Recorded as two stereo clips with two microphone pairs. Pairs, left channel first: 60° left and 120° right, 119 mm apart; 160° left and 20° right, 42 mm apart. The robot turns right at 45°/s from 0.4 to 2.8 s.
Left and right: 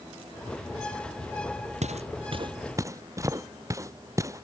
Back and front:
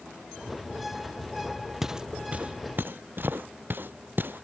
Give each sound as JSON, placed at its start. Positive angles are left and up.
{"t": 1.8, "sound": "footsteps", "azimuth_deg": -100}